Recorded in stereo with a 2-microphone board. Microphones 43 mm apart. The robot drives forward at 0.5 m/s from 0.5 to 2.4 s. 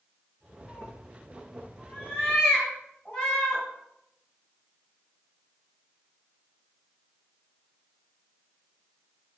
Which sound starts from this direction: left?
A cat meowing, at 0.7 s.